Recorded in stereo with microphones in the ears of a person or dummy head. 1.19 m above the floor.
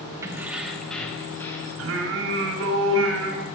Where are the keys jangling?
25° right (ahead or behind), 1.0 m; by 1.7 s 5° left (ahead or behind), 2 m.